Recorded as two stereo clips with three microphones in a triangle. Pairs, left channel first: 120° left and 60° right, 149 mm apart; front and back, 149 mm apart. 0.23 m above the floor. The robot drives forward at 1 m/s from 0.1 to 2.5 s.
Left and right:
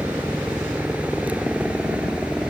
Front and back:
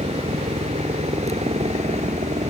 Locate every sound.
0.0 s a helicopter: 140° right